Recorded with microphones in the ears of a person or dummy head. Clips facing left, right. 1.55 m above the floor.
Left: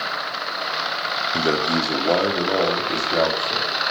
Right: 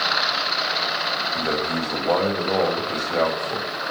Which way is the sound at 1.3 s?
50° left (ahead or behind).